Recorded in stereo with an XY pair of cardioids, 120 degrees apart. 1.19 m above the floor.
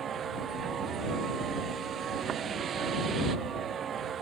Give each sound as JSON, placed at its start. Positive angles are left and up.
{"t": 0.0, "sound": "a vehicle", "azimuth_deg": -45}